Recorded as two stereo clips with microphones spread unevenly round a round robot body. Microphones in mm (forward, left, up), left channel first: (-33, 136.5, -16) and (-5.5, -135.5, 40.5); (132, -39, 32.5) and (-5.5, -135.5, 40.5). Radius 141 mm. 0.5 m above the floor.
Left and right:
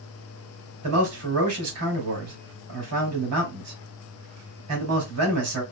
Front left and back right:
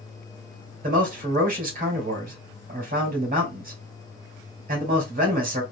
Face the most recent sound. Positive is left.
turn(degrees=-120)